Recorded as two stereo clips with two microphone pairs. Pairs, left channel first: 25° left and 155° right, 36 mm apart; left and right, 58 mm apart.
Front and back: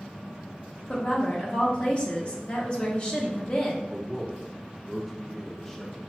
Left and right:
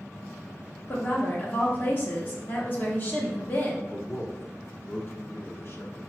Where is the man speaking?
95° left, 0.9 m.